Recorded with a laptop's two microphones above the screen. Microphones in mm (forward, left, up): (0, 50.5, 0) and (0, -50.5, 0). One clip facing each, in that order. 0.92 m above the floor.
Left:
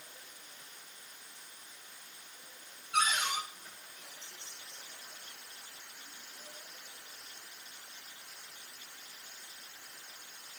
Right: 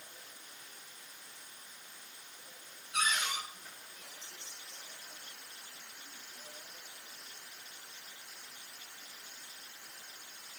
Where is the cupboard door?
75° left (ahead or behind), 5 m.